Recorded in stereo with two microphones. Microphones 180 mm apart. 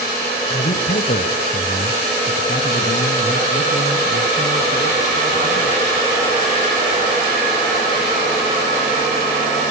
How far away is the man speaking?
About 2.0 m.